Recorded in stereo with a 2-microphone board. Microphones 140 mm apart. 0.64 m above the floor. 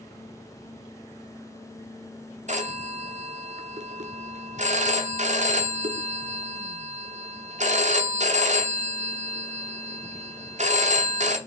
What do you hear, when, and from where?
2.5 s a phone ringing: 60° right (ahead or behind), 0.6 m